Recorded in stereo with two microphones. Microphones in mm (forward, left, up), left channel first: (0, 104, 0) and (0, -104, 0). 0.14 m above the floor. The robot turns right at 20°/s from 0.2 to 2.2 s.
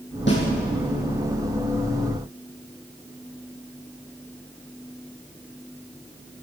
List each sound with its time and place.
0.3 s a snare drum: 60° left (ahead or behind), 4.5 m